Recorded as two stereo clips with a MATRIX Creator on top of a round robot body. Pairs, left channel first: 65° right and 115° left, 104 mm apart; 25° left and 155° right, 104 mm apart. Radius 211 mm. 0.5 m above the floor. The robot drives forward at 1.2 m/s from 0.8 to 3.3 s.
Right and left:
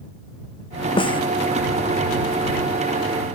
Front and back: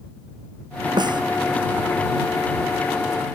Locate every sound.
1.0 s a snare drum: 110° right